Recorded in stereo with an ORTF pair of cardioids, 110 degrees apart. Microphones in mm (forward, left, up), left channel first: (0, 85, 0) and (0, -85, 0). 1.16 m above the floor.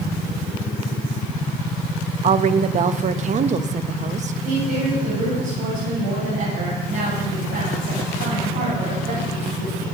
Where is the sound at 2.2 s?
45° right, 1.0 m.